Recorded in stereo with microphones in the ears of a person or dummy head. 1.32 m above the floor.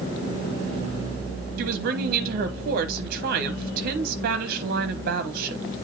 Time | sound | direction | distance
1.6 | a woman speaking | 55° right (ahead or behind) | 0.9 m